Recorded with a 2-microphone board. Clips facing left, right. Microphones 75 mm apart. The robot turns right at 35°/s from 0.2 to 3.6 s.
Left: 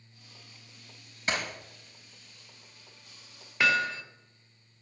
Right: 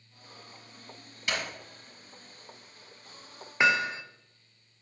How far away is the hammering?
About 0.7 m.